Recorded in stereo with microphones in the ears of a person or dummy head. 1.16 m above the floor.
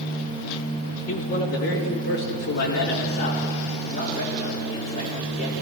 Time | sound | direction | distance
1.1 | a man speaking | 65° left (ahead or behind) | 1.6 m